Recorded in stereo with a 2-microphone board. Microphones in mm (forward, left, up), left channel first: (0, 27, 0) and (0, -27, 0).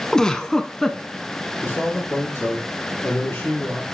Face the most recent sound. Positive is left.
turn(degrees=50)  # may be behind; listen again after turning